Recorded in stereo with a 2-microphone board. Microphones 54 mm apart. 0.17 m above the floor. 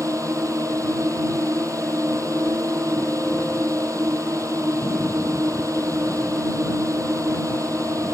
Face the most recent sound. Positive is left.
turn(degrees=-75)  # may be behind; listen again after turning